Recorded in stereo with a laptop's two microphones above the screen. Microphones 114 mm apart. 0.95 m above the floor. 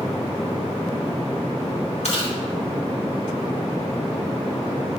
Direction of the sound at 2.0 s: 75° left (ahead or behind).